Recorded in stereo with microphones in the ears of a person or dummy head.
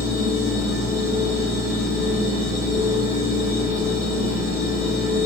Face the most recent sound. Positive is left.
turn(degrees=-15)  # may be behind; listen again after turning